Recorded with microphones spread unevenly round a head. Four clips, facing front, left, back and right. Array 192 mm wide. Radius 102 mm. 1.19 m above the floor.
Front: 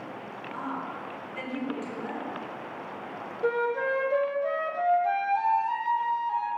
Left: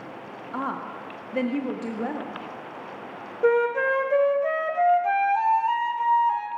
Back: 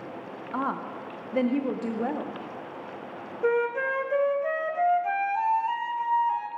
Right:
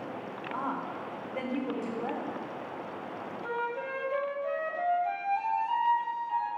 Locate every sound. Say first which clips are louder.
0.5 s a woman speaking: left 4 dB, back 5 dB; 140° left, 0.7 m
3.4 s a flute: left 14 dB, back 2 dB; 80° left, 0.7 m